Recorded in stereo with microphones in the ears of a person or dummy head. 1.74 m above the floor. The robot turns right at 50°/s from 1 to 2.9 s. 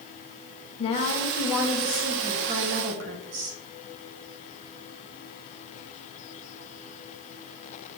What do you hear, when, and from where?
0.8 s a woman speaking: 145° left, 1.3 m; by 3.6 s 120° right, 1.3 m